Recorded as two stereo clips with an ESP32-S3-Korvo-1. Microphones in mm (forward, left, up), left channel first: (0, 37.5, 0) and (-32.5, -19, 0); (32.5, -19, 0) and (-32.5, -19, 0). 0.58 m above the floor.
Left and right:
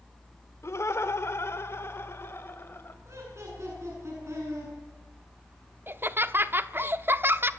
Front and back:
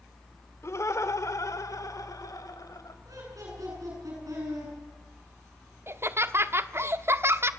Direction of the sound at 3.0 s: 160° right.